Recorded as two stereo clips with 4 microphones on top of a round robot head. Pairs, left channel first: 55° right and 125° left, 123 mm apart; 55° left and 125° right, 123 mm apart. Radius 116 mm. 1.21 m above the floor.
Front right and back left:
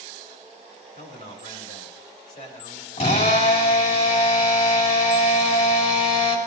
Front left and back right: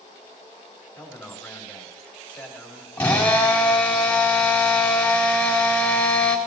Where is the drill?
20° right, 4 m.